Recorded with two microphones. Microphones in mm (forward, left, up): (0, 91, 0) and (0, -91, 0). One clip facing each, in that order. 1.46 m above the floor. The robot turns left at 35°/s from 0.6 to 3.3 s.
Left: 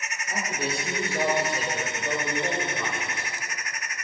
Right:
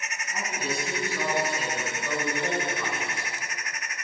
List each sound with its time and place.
0.3 s a man speaking: 75° left, 5 m; by 3.3 s 20° right, 5 m